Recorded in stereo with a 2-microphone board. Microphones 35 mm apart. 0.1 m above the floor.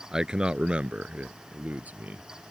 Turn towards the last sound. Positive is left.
turn(degrees=-50)  # may be behind; listen again after turning